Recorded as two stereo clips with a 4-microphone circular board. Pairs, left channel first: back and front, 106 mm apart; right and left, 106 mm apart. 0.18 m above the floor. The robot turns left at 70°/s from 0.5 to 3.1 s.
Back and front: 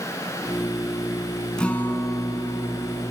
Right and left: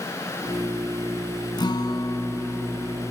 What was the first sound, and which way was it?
A guitar, 100° right.